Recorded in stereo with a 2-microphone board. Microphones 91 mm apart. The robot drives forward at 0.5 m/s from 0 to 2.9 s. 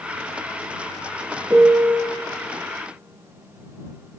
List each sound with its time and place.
1.5 s a piano: 25° right (ahead or behind), 0.6 m; by 2.0 s 15° right (ahead or behind), 0.9 m